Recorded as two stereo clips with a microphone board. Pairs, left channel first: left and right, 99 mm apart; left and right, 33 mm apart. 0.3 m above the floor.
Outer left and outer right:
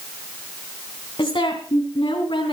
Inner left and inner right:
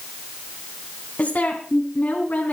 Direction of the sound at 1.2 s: 60° left (ahead or behind).